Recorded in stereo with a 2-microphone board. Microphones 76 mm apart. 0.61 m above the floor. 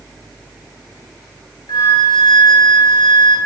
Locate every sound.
1.7 s a flute: 70° left (ahead or behind), 4 m